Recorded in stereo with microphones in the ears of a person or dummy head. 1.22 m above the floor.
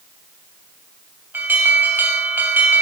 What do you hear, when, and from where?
1.3 s an alarm: 10° right (ahead or behind), 2.5 m